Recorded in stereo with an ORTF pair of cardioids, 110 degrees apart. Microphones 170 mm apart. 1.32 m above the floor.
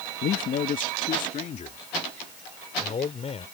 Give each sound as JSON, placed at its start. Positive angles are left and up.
{"t": 0.2, "sound": "a man speaking", "azimuth_deg": 60}